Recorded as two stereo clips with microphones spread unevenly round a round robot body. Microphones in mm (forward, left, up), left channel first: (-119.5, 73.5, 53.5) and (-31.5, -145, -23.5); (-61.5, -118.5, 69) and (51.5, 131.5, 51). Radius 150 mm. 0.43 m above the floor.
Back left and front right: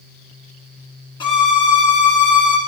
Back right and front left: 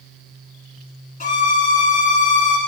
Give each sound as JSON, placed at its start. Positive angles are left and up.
{"t": 1.2, "sound": "a violin", "azimuth_deg": -175, "distance_m": 1.6}